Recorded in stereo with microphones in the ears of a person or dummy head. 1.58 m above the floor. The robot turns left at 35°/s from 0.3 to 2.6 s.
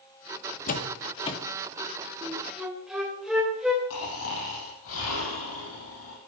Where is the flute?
10° right (ahead or behind), 3 m; by 3.8 s centre (ahead or behind), 3 m.